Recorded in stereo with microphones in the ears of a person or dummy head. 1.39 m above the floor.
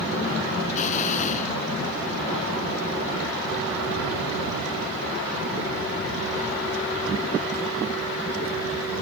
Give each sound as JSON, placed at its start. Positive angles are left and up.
{"t": 0.7, "sound": "an explosion", "side_deg": 45}